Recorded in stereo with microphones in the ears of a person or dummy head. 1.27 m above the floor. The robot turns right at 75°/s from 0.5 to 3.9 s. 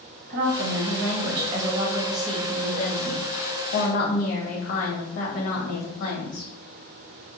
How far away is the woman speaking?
About 0.9 m.